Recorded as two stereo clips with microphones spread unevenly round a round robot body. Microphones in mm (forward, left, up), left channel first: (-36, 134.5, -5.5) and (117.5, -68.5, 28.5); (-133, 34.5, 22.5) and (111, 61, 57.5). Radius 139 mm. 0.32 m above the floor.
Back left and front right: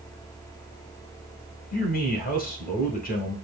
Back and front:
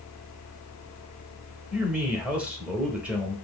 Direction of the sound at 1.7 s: 95° left.